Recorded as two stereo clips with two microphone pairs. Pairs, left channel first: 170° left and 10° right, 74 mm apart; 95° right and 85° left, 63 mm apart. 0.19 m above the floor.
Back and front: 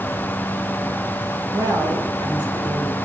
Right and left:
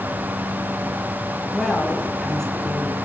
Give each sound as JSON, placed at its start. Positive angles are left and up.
{"t": 1.5, "sound": "a woman speaking", "azimuth_deg": -10, "distance_m": 5.0}